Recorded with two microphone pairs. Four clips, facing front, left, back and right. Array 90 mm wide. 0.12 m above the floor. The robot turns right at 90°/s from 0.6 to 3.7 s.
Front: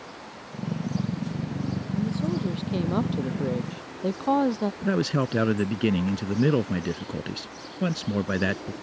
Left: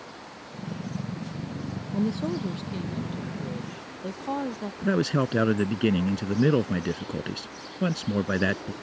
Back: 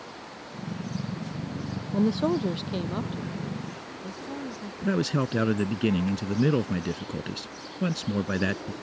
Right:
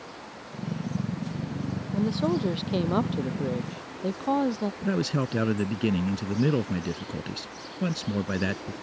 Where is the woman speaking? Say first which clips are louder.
Right 2 dB, back 5 dB; 170° right; by 4.7 s 10° right.